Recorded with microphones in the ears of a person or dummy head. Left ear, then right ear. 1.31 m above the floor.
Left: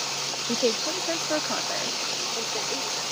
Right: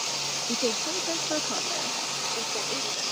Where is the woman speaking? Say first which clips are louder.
Left 5 dB; 30° left (ahead or behind); by 3.0 s 10° left (ahead or behind).